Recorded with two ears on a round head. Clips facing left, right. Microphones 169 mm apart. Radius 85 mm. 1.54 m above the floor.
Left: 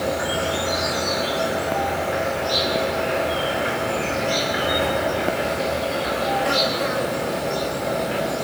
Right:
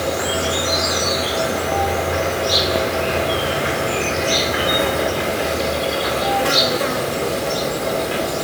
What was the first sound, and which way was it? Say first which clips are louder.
An insect: right 2 dB; 60° right (ahead or behind).